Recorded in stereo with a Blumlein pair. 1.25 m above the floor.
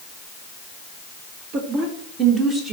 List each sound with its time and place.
1.5 s a woman speaking: 35° right, 1.9 m; by 2.7 s 15° right, 3 m